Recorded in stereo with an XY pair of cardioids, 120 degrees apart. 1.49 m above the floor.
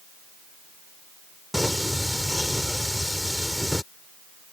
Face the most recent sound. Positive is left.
turn(degrees=5)